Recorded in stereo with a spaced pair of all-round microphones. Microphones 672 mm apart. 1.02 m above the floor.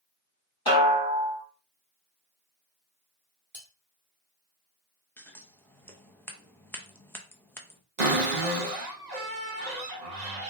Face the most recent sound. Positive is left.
turn(degrees=-80)